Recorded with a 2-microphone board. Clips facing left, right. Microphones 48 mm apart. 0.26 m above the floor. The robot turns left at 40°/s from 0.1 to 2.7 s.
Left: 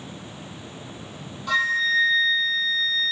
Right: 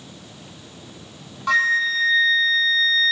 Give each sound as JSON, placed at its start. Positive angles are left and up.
{"t": 1.5, "sound": "a flute", "azimuth_deg": -60, "distance_m": 0.8}